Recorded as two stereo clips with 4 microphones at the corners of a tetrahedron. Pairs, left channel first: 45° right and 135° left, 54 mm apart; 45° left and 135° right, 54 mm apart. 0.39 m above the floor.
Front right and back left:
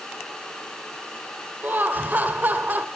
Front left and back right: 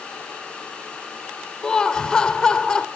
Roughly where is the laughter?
Behind left.